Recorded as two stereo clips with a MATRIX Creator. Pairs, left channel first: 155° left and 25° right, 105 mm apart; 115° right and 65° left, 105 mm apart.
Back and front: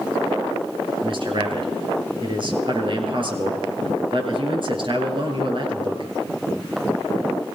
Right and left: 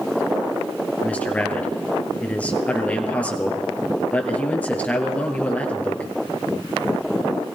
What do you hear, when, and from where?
1.0 s a man speaking: 40° right, 2.5 m